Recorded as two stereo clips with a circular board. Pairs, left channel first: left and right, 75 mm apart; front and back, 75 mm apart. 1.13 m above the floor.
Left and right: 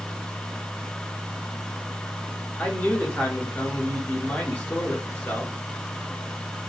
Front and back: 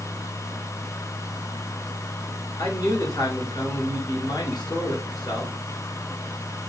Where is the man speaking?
10° left, 1.9 m.